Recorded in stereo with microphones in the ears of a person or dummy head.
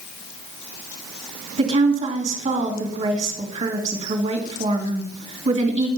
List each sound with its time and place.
1.6 s a woman speaking: 30° right (ahead or behind), 3 m